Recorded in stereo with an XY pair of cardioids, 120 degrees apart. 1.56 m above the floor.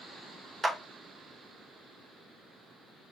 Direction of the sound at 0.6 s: 15° right.